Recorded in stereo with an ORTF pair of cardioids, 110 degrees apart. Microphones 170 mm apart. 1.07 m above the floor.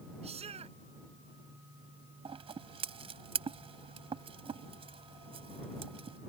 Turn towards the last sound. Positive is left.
turn(degrees=-35)